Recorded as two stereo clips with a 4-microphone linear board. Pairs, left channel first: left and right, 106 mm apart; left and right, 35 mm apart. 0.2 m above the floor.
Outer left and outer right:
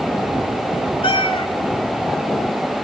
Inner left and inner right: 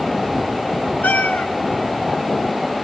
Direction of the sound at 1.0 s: 60° left (ahead or behind).